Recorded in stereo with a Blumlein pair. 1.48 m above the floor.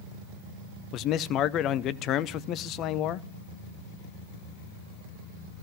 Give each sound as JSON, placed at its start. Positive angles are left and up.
{"t": 0.9, "sound": "a man speaking", "azimuth_deg": 35, "distance_m": 0.6}